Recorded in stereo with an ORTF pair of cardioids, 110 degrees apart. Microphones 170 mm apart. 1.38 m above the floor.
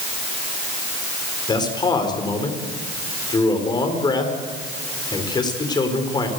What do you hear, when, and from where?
1.5 s a man speaking: 25° left, 4.5 m